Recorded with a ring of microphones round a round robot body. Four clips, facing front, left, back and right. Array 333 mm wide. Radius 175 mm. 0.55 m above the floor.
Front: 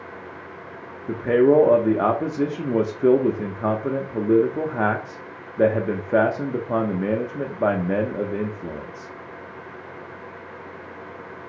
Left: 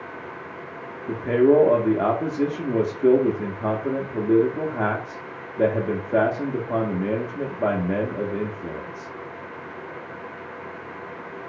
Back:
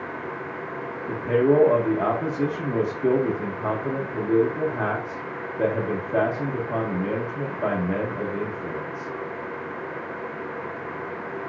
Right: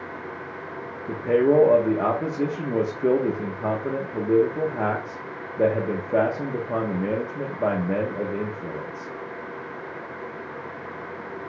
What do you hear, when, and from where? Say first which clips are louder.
1.1 s a man speaking: left 2 dB, front 3 dB; 5° left, 0.7 m